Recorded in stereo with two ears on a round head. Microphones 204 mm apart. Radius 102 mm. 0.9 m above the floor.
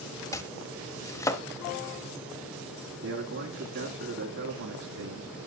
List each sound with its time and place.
0.3 s chopping: 15° left (ahead or behind), 0.7 m
3.0 s a man speaking: 55° right (ahead or behind), 2.5 m